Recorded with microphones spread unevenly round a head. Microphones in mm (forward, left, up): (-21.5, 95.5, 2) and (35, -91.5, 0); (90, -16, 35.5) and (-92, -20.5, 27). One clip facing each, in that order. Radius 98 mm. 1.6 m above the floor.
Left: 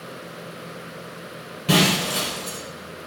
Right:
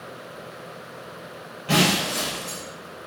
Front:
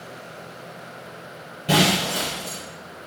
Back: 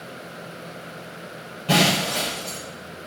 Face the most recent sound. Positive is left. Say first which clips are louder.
# left 2 dB, even
turn(degrees=80)